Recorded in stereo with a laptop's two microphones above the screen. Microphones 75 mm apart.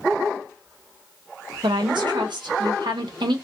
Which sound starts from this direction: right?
A woman speaking, at 1.6 s.